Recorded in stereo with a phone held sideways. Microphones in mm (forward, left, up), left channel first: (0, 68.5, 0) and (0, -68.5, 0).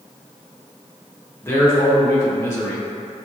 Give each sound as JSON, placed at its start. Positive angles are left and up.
{"t": 1.4, "sound": "a man speaking", "side_deg": 20, "distance_m": 0.7}